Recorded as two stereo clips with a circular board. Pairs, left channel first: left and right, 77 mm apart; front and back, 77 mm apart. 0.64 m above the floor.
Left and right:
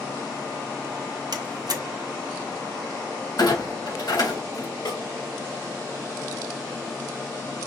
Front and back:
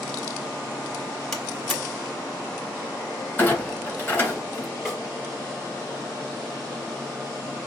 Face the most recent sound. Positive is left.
turn(degrees=95)